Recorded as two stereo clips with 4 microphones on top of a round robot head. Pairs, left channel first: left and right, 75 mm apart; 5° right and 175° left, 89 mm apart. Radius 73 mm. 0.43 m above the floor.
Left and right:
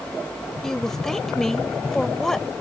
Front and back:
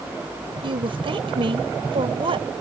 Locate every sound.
0.6 s a woman speaking: 175° left